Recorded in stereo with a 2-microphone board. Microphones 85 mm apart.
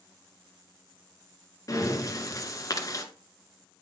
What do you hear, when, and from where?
1.7 s breathing: 40° left (ahead or behind), 1.4 m